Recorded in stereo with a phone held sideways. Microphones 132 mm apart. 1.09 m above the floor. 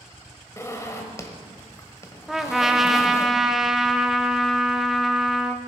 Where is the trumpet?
Centre (ahead or behind), 0.7 m.